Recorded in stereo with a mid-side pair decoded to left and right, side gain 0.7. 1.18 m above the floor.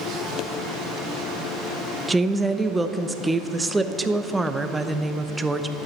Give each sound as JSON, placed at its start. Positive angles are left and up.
{"t": 2.1, "sound": "a woman speaking", "azimuth_deg": -10, "distance_m": 0.7}